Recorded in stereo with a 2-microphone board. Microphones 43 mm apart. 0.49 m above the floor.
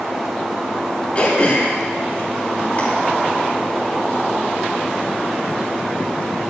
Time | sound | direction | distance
1.1 | throat clearing | 40° left (ahead or behind) | 8.5 m